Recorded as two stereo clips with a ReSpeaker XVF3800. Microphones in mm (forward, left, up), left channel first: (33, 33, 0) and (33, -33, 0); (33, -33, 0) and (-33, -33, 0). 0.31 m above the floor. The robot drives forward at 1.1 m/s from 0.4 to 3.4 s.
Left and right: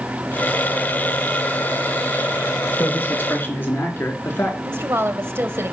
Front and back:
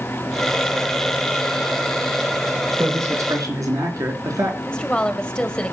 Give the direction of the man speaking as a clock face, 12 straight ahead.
7 o'clock.